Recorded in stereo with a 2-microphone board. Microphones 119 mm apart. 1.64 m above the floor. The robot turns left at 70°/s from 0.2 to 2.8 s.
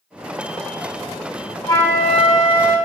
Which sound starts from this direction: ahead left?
A flute, at 1.7 s.